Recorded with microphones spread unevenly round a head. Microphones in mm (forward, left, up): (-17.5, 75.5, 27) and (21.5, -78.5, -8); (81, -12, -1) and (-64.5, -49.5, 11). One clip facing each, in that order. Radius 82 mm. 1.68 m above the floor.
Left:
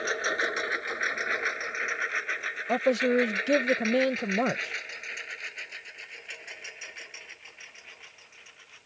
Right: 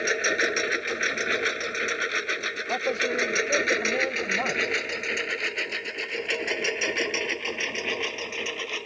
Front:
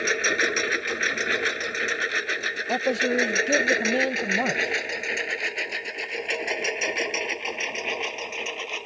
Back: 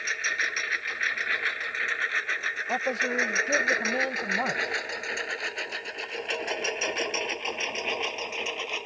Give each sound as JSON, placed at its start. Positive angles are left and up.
{"t": 0.0, "sound": "a lawn mower", "azimuth_deg": -10}
{"t": 2.7, "sound": "a man speaking", "azimuth_deg": 75}